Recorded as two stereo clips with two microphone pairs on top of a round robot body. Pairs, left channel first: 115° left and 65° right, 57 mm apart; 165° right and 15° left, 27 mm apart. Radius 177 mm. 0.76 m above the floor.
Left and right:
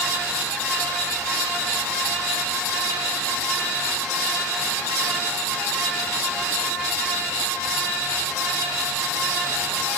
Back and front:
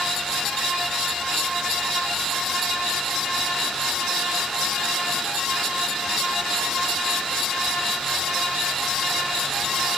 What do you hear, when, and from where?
Only background noise.